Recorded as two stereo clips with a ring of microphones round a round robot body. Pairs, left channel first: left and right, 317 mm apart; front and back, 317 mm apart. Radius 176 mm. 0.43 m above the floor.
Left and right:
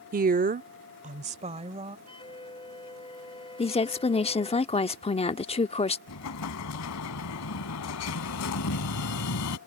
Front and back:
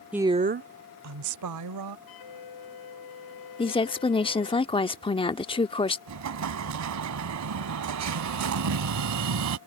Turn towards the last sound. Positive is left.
turn(degrees=140)